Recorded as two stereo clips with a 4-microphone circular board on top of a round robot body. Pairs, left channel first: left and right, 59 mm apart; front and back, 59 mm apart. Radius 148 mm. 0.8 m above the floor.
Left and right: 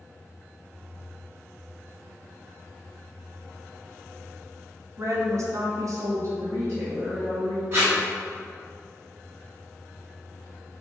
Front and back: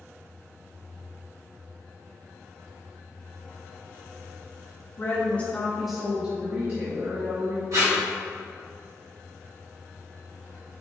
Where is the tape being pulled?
145° right, 0.9 m.